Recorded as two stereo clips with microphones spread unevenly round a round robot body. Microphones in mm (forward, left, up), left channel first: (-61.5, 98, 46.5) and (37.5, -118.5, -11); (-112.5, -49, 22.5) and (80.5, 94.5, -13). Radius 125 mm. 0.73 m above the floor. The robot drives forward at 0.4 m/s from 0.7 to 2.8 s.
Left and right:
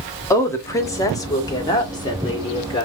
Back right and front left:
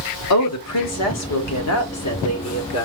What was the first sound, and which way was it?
A woman speaking, 160° right.